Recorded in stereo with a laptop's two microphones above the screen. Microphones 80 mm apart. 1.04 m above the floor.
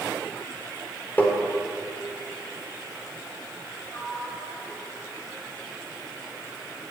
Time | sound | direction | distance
1.2 | tapping | 25° left (ahead or behind) | 3 m
3.9 | a sliding door | 30° left (ahead or behind) | 2.5 m